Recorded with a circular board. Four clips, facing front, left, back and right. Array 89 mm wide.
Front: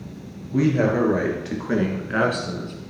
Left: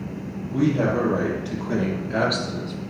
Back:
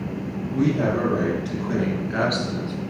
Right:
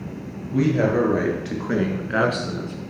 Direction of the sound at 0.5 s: 45° right.